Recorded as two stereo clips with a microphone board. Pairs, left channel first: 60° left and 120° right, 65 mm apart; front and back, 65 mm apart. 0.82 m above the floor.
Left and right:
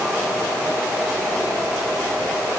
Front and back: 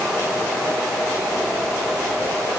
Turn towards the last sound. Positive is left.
No sound to turn to.